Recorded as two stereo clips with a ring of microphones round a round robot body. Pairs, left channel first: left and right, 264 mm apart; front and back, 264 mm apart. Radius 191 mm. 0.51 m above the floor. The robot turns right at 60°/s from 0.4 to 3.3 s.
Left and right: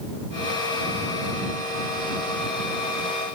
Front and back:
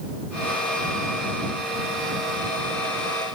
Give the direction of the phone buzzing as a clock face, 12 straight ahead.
No phone buzzing in this recording.